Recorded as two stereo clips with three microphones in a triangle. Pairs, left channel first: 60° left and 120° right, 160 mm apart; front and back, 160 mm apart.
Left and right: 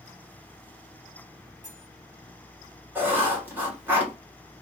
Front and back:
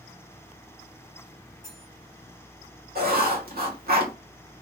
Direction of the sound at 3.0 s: 165° left.